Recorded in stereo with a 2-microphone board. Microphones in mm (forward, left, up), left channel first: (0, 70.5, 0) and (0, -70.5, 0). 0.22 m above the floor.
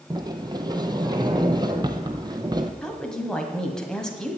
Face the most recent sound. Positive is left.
turn(degrees=5)  # may be behind; listen again after turning